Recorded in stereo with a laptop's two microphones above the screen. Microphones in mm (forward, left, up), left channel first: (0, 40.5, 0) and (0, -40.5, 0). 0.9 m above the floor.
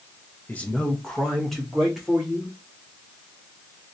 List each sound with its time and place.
0.5 s a man speaking: 20° left (ahead or behind), 0.6 m; by 2.5 s 5° right (ahead or behind), 1.7 m